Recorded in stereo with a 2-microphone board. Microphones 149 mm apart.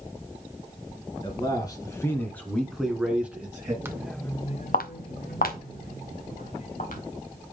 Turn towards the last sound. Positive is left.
turn(degrees=65)  # may be behind; listen again after turning